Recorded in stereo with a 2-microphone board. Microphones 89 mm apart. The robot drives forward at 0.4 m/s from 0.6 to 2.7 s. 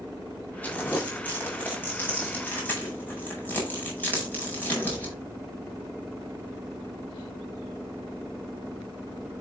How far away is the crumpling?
About 9 m.